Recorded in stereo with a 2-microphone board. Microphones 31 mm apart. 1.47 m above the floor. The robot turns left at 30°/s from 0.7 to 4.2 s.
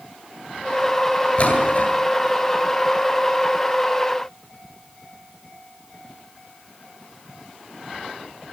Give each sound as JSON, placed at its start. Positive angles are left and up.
{"t": 1.4, "sound": "a splash", "side_deg": 40, "distance_m": 8.5}